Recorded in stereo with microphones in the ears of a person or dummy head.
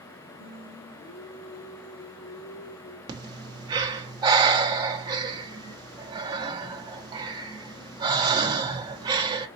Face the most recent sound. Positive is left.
turn(degrees=-25)  # may be behind; listen again after turning